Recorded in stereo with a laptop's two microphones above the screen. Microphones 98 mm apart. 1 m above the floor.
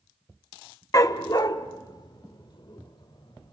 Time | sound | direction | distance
0.9 | a dog barking | 35° left (ahead or behind) | 0.6 m